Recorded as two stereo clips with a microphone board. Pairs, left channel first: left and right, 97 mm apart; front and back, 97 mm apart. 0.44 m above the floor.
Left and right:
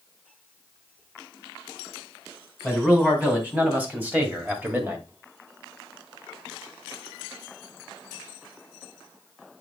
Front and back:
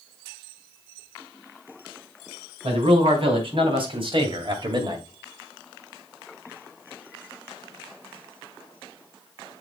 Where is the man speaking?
165° right, 3.5 m; by 5.1 s 150° right, 1.8 m.